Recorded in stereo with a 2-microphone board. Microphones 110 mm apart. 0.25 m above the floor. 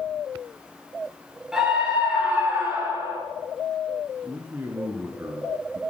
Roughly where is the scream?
Centre.